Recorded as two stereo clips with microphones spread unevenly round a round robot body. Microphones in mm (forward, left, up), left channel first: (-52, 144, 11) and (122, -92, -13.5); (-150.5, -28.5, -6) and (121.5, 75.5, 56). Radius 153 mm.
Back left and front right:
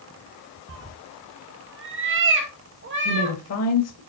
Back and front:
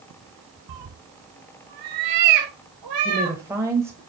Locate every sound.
0.7 s a cat meowing: 5° right, 0.9 m; by 3.4 s straight ahead, 2.5 m
3.0 s a woman speaking: 110° left, 1.2 m